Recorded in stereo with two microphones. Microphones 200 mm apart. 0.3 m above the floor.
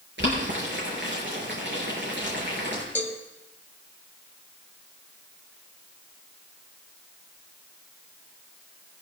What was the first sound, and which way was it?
Boiling, 65° right (ahead or behind).